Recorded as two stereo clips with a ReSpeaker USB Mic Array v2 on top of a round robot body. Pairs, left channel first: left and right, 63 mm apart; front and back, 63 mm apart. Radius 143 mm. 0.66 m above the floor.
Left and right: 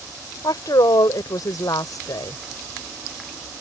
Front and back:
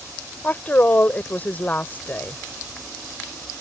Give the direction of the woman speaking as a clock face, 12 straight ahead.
10 o'clock.